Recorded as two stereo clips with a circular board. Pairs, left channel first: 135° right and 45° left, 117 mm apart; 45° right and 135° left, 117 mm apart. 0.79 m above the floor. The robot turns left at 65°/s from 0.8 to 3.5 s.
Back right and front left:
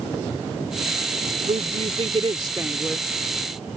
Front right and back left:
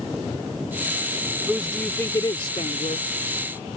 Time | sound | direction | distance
1.5 | a woman speaking | 55° left | ?